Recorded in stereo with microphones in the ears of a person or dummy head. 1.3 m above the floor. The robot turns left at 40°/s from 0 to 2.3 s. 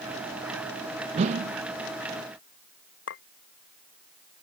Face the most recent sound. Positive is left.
turn(degrees=70)  # may be behind; listen again after turning